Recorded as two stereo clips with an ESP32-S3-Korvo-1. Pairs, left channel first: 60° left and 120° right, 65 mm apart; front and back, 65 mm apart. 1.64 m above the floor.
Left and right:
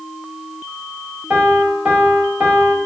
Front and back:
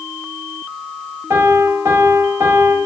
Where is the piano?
Straight behind, 0.6 m.